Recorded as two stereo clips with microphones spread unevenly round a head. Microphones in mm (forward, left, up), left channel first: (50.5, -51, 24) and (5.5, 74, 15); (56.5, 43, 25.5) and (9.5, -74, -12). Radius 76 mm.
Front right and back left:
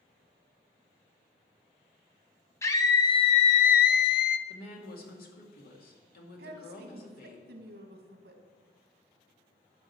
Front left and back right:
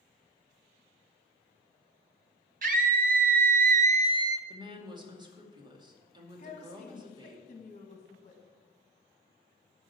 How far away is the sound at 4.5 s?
About 2.5 m.